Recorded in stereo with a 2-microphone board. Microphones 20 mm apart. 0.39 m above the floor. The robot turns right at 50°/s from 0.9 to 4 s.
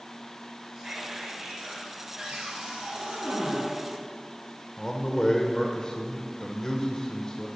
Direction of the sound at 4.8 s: 25° left (ahead or behind).